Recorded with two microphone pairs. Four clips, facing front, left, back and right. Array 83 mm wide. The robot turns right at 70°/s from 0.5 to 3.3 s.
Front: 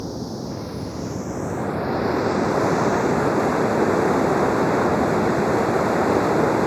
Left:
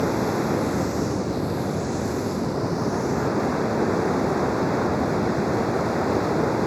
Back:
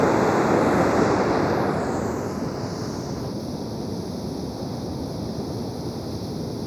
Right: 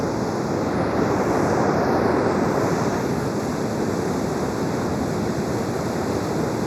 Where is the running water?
175° left; by 6.7 s 10° left.